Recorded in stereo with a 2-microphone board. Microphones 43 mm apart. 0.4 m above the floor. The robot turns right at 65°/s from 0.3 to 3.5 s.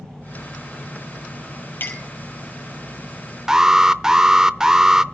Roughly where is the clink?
Left.